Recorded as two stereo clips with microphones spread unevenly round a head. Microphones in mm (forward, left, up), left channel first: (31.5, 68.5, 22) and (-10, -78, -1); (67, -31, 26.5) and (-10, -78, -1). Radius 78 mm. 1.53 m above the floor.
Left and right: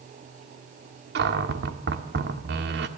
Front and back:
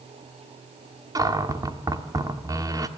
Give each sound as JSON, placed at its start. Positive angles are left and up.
{"t": 1.1, "sound": "a cupboard door", "azimuth_deg": -95, "distance_m": 1.7}